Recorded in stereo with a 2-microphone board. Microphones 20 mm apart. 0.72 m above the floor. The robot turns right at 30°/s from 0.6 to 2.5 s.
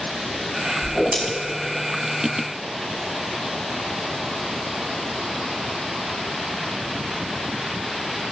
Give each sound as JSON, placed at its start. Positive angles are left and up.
{"t": 0.8, "sound": "a whoosh", "side_deg": -45, "distance_m": 2.5}